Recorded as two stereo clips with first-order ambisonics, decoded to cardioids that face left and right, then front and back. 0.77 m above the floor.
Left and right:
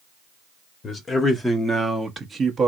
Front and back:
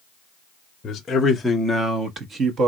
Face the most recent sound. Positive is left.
turn(degrees=-145)